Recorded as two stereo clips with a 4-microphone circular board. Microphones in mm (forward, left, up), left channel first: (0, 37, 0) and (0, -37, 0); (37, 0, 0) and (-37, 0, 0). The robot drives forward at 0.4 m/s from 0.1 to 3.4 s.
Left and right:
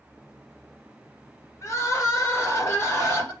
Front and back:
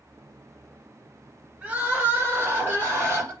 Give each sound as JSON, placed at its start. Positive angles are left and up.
{"t": 1.6, "sound": "crying", "azimuth_deg": 115, "distance_m": 1.6}